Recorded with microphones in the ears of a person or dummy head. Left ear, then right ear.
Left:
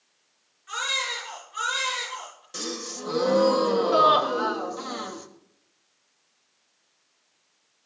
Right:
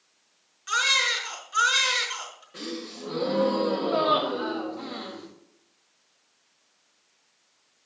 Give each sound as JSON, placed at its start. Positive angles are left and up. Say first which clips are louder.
{"t": 0.7, "sound": "a baby crying", "louder": "right 5 dB", "side_deg": -75, "distance_m": 5.0}
{"t": 2.5, "sound": "a gasp", "louder": "left 4 dB", "side_deg": 85, "distance_m": 2.0}